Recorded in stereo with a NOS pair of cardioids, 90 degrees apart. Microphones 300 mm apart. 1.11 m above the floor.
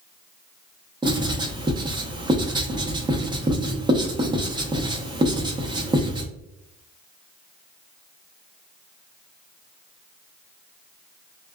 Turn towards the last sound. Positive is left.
turn(degrees=-15)